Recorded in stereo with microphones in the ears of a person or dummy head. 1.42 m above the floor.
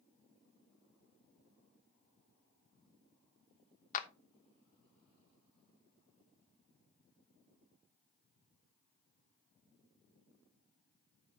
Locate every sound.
3.9 s a clap: 45° left (ahead or behind), 0.9 m